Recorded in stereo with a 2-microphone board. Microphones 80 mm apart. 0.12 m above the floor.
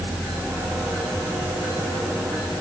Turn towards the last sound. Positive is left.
No sound to turn to.